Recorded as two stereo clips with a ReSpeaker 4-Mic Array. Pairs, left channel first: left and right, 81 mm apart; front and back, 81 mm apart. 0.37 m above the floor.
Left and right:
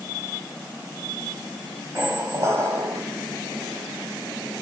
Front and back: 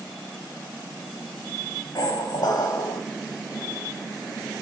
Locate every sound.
1.9 s a squeak: 35° right, 0.8 m